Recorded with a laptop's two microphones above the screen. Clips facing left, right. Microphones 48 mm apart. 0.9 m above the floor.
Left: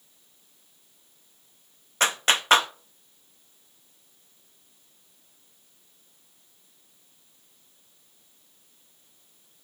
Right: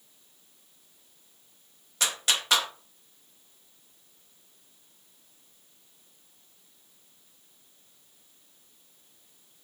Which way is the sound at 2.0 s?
40° left (ahead or behind).